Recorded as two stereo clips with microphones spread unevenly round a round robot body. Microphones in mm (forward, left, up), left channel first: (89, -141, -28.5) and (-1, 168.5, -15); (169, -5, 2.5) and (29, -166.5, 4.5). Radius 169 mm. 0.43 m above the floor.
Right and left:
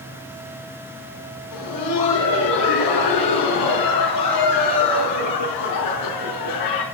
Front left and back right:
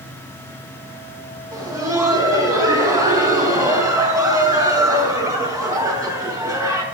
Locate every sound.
1.5 s laughter: 55° right, 3 m